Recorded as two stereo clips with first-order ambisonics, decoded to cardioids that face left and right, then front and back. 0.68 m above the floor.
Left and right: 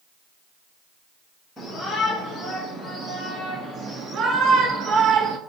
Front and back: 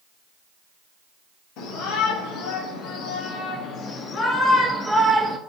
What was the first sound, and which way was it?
A shout, 5° right.